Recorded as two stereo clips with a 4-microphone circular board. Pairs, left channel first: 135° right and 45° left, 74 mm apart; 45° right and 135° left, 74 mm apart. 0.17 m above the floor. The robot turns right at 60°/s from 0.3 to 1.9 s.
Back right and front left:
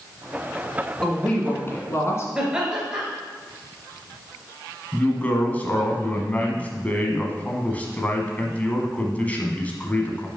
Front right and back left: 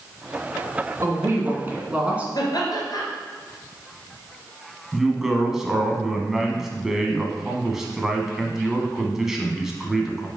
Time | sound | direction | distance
1.0 | a woman speaking | 145° left | 1.8 m
2.4 | laughter | 35° right | 2.5 m
4.9 | a woman speaking | 150° right | 1.1 m